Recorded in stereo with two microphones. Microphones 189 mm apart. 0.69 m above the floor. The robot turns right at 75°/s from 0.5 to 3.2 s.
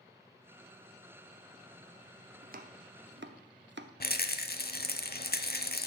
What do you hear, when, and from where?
2.4 s chopping: 40° right (ahead or behind), 0.8 m; by 3.9 s 70° right (ahead or behind), 0.8 m
4.0 s a rattle: 55° left (ahead or behind), 0.8 m